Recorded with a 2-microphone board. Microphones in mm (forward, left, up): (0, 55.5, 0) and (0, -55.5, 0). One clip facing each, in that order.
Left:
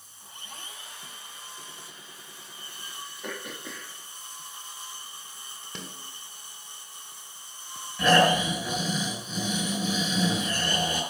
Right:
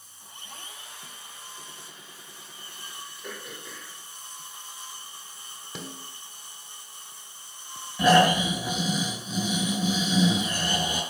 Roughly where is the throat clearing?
Left.